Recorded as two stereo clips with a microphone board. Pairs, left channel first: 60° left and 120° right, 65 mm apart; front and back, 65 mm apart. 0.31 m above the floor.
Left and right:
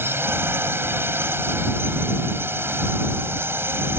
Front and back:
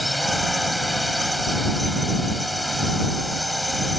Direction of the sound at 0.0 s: 90° right.